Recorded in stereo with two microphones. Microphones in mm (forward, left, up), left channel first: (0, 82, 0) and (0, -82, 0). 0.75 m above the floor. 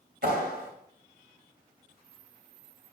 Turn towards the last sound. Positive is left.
turn(degrees=-75)  # may be behind; listen again after turning